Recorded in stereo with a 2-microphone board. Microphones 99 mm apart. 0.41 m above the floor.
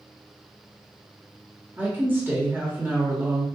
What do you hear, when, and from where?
1.8 s a woman speaking: 20° right (ahead or behind), 1.1 m